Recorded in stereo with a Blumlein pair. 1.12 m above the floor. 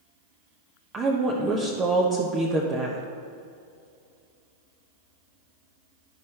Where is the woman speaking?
20° right, 1.0 m.